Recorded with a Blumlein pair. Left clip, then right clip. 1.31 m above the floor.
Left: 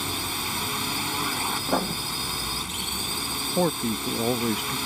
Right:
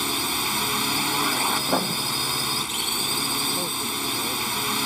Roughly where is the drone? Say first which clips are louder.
Right 4 dB; ahead.